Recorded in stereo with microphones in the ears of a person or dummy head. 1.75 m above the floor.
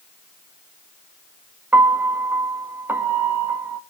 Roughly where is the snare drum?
No snare drum in this recording.